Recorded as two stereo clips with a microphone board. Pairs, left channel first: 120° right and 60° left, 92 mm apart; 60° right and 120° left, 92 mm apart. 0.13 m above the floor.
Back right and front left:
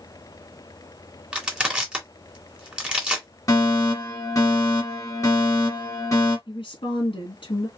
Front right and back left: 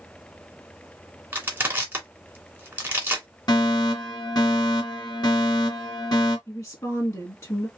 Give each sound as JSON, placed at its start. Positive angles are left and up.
{"t": 1.3, "sound": "crushing", "azimuth_deg": 110, "distance_m": 1.8}
{"t": 3.5, "sound": "a fire alarm", "azimuth_deg": -75, "distance_m": 3.0}
{"t": 6.5, "sound": "a woman speaking", "azimuth_deg": -110, "distance_m": 2.5}